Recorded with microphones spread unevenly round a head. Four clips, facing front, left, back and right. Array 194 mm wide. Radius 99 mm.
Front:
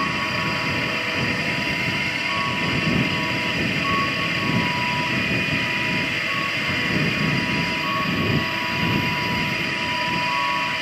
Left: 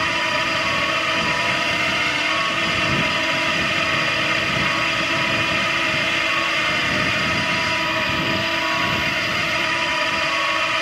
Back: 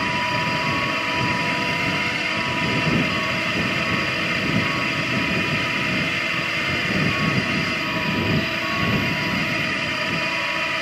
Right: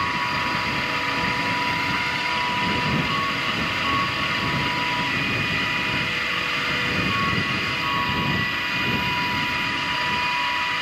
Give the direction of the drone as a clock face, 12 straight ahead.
8 o'clock.